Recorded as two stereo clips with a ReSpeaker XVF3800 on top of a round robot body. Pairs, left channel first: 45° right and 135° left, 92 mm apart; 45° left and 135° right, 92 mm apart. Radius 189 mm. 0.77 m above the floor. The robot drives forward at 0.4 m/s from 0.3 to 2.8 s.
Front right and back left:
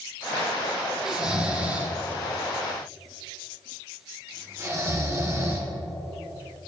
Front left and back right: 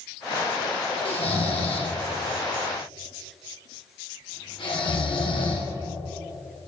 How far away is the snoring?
About 1.6 m.